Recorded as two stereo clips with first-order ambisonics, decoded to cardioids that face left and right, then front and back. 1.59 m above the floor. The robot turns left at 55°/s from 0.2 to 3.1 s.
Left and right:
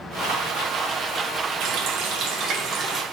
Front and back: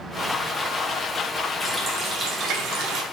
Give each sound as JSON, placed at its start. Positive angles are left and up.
{"t": 1.6, "sound": "a running tap", "azimuth_deg": -85, "distance_m": 0.9}